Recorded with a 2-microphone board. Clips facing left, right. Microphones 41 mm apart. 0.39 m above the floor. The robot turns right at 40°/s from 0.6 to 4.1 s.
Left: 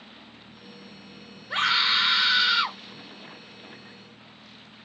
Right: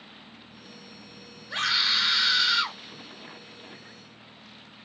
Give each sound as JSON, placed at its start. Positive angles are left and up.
{"t": 1.5, "sound": "a scream", "side_deg": 25, "distance_m": 0.8}